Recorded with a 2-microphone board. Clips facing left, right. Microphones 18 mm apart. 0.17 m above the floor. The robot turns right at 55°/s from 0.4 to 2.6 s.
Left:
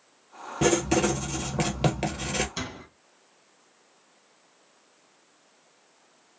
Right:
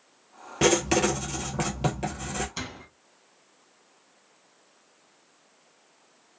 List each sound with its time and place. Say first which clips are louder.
0.6 s writing: right 1 dB; 40° right, 0.9 m; by 2.5 s 60° left, 0.9 m
2.6 s a door slam: left 1 dB; 5° left (ahead or behind), 0.8 m